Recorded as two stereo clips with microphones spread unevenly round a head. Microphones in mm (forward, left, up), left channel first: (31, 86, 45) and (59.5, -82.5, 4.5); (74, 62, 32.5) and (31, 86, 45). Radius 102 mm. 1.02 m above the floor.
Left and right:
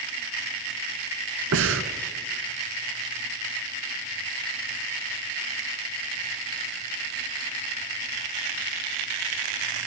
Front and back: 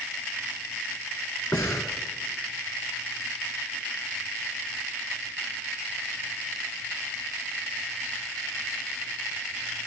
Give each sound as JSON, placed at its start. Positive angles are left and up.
{"t": 1.5, "sound": "breathing", "azimuth_deg": -115, "distance_m": 2.5}